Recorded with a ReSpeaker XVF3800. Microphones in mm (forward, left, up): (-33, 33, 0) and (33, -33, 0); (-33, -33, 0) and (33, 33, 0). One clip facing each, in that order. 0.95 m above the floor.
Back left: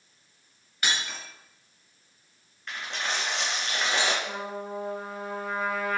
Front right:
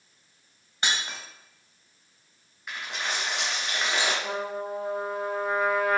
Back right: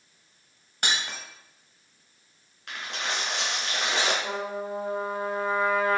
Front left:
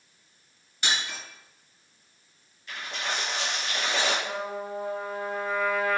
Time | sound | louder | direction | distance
0.8 | breaking glass | front right 1 dB, back right 1 dB | 105° right | 2.5 m
2.7 | a dropped coin | even, even | 130° right | 3 m
4.2 | a trumpet | front right 3 dB, back right 1 dB | 75° right | 1.4 m